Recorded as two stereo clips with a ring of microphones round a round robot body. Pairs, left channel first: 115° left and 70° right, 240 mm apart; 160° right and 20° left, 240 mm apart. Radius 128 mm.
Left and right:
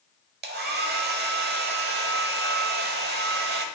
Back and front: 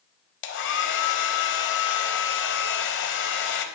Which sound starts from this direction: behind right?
A hair dryer, at 0.4 s.